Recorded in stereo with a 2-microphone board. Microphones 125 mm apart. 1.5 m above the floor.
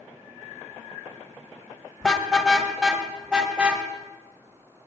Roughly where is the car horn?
Centre.